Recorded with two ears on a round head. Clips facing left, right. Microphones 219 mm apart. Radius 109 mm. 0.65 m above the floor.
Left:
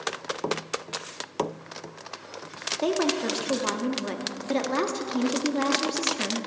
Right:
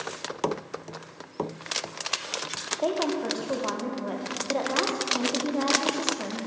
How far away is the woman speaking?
About 0.7 m.